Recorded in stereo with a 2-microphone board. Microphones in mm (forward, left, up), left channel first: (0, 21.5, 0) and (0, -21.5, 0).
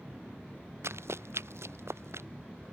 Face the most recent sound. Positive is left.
turn(degrees=-75)  # may be behind; listen again after turning